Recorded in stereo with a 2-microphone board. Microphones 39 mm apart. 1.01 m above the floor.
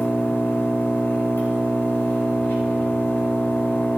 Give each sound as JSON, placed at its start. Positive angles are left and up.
{"t": 0.0, "sound": "an engine running", "side_deg": 70, "distance_m": 4.0}